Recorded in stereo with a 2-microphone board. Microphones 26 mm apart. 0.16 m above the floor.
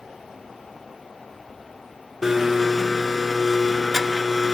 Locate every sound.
2.2 s a blender: 10° right (ahead or behind), 0.7 m